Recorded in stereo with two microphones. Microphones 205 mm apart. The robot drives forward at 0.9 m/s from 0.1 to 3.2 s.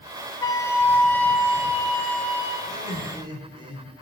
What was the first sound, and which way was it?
A flute, 20° left (ahead or behind).